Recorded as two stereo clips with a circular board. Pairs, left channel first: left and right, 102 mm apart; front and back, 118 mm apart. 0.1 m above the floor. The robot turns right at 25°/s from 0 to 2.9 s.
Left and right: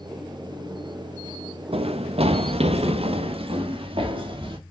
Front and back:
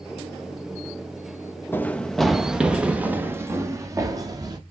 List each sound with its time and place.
1.7 s running footsteps: 70° right, 1.2 m; by 4.6 s 125° right, 3.5 m